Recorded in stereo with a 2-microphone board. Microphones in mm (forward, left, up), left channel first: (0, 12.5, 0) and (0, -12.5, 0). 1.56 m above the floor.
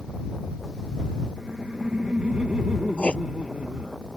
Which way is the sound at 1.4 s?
55° right (ahead or behind).